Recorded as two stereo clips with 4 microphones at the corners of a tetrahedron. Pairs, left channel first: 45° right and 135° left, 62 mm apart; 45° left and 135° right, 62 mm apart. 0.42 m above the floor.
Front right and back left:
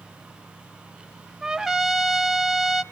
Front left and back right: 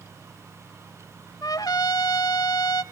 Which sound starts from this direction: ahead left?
A trumpet, at 1.4 s.